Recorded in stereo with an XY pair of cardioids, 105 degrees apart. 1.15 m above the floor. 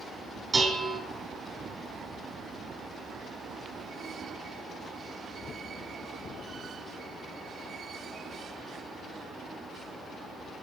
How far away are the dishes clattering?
About 6.5 m.